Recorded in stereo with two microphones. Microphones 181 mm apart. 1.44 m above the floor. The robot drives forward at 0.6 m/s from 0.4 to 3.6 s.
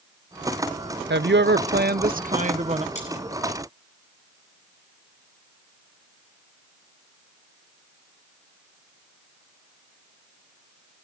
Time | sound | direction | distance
1.1 | a woman speaking | 75° right (ahead or behind) | 0.7 m
3.0 | cutlery clinking | 40° left (ahead or behind) | 8.5 m